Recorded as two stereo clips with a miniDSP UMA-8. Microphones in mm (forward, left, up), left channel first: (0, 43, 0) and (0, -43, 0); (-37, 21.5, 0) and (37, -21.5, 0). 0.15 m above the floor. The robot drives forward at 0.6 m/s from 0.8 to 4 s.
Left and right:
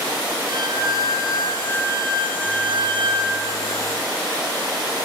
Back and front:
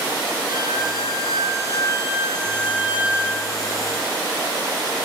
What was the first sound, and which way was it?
A violin, 60° right.